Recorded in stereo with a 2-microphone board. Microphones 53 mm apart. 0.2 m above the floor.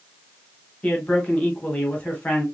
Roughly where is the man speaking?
Left.